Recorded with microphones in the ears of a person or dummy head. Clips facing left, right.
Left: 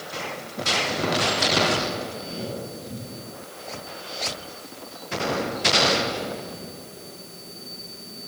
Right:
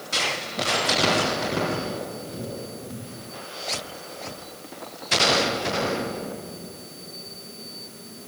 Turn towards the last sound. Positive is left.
No sound to turn to.